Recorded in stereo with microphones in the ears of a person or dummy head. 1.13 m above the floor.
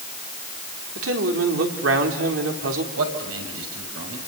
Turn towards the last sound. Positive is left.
turn(degrees=-85)